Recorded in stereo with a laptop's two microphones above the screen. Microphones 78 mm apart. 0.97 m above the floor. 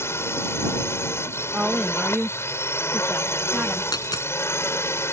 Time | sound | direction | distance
0.0 | a drone | 35° left (ahead or behind) | ?
1.5 | a woman speaking | 15° right (ahead or behind) | ?
3.9 | a dropped coin | 70° left (ahead or behind) | ?